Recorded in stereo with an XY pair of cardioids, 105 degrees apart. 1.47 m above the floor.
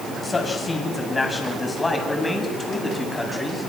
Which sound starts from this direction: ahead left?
A man speaking, at 0.2 s.